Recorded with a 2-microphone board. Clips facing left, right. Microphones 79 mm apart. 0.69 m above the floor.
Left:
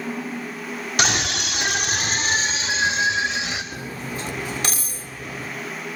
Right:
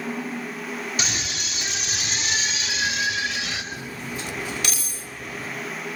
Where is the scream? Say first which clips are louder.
Left 7 dB; 65° left (ahead or behind), 1.5 m; by 3.6 s 20° left (ahead or behind), 3 m.